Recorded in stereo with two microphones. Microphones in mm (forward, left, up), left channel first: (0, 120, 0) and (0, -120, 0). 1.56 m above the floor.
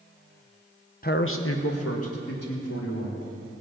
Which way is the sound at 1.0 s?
35° left (ahead or behind).